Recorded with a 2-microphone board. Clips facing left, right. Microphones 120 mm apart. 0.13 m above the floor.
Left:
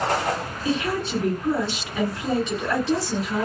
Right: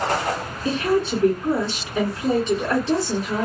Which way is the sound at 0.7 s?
30° right (ahead or behind).